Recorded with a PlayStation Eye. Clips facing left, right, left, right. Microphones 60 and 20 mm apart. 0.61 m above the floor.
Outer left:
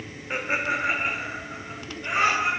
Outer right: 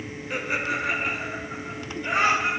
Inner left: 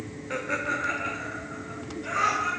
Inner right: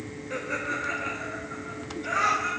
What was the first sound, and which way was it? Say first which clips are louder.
Laughter: outer left 1 dB, inner left 2 dB; 30° left (ahead or behind).